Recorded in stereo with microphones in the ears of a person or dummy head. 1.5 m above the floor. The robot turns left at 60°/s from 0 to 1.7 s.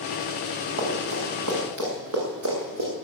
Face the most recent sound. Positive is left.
turn(degrees=-75)  # may be behind; listen again after turning